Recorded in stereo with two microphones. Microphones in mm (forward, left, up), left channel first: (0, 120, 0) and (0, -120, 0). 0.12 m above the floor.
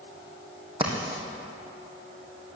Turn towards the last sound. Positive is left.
turn(degrees=-20)  # may be behind; listen again after turning